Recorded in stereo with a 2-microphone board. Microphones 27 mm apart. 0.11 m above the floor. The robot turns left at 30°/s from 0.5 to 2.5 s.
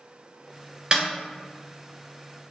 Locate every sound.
0.9 s a snare drum: 25° right (ahead or behind), 1.6 m